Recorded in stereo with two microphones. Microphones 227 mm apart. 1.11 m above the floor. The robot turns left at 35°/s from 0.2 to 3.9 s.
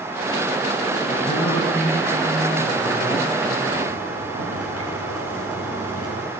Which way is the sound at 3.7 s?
80° right.